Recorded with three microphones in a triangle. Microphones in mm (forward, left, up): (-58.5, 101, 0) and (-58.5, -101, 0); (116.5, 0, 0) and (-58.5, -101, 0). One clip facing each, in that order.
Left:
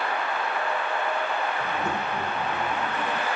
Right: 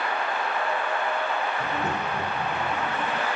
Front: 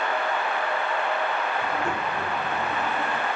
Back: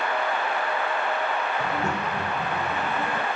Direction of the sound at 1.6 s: 160° right.